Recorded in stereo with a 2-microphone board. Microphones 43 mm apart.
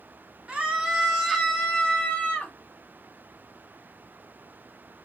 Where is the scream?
25° right (ahead or behind), 1.3 m; by 2.5 s 35° left (ahead or behind), 1.7 m.